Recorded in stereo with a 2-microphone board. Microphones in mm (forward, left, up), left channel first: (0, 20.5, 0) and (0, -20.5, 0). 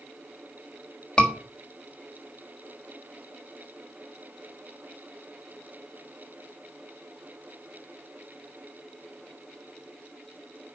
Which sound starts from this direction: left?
A scream, at 1.2 s.